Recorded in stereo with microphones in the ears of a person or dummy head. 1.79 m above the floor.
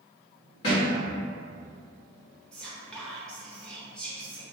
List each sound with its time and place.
0.6 s a thud: 20° left (ahead or behind), 1.1 m
2.5 s whispering: centre (ahead or behind), 0.8 m